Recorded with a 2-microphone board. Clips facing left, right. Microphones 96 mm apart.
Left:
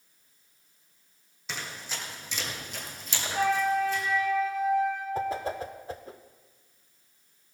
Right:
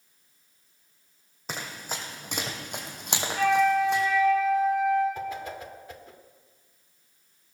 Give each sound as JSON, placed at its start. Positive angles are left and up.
{"t": 1.5, "sound": "running footsteps", "side_deg": -45, "distance_m": 2.0}
{"t": 3.3, "sound": "a flute", "side_deg": 35, "distance_m": 6.0}
{"t": 5.2, "sound": "a whoosh", "side_deg": 35, "distance_m": 0.7}